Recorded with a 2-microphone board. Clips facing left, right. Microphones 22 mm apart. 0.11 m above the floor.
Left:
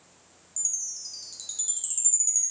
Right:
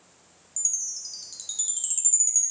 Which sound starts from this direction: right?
A chime, at 0.6 s.